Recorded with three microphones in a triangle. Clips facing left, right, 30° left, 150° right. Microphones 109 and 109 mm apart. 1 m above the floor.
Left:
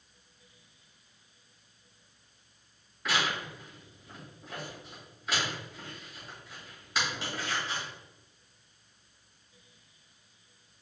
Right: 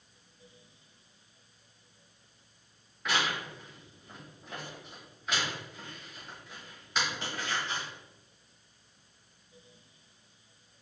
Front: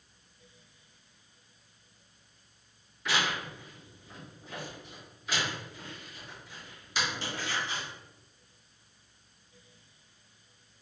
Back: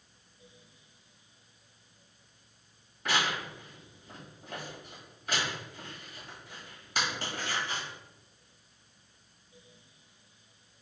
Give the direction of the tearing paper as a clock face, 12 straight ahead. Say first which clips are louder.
Even, even; 6 o'clock.